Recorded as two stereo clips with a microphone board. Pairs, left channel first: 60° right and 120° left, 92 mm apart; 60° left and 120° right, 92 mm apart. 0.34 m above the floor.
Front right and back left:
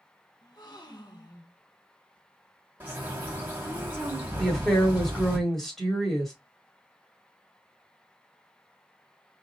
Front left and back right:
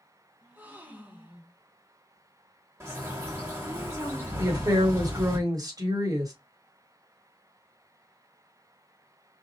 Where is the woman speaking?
145° right, 2.0 m.